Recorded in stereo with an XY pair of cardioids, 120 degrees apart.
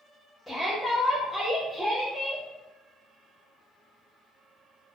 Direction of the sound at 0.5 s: 5° left.